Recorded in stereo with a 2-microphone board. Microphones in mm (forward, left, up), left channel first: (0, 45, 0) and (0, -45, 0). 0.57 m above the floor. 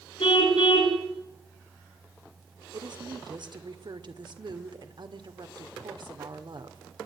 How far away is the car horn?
About 3.5 m.